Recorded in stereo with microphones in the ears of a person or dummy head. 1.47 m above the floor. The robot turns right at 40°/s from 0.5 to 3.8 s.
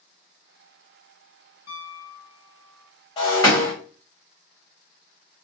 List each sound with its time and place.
1.7 s a piano: 115° left, 0.7 m; by 2.9 s 165° left, 0.7 m
3.2 s breaking glass: 35° left (ahead or behind), 1.3 m; by 3.7 s 15° left (ahead or behind), 1.3 m